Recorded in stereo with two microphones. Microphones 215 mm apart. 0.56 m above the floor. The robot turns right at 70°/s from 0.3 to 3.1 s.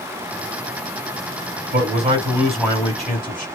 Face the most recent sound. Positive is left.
turn(degrees=40)